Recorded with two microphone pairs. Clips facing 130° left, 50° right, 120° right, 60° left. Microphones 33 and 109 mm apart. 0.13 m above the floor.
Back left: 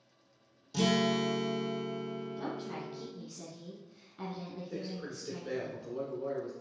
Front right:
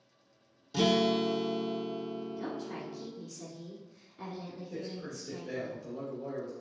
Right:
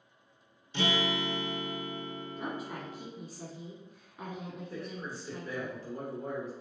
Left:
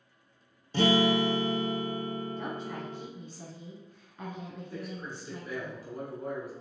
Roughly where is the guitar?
Ahead.